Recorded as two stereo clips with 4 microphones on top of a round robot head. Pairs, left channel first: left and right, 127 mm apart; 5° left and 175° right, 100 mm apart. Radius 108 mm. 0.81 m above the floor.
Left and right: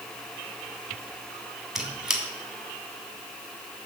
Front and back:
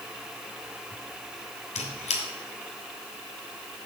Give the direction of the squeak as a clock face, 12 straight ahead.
12 o'clock.